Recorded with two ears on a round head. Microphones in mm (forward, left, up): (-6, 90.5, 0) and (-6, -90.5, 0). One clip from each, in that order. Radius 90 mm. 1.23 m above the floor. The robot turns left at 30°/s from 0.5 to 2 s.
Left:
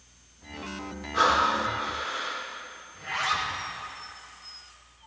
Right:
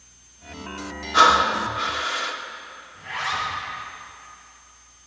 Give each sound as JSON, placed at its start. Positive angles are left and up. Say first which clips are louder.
{"t": 1.1, "sound": "breathing", "louder": "right 6 dB", "side_deg": -75, "distance_m": 1.6}
{"t": 2.9, "sound": "a zipper", "louder": "right 1 dB", "side_deg": 70, "distance_m": 4.5}